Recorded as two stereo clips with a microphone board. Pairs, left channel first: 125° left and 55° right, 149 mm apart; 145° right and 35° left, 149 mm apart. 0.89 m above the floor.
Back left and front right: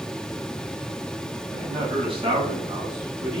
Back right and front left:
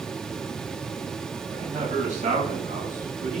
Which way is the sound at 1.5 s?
5° right.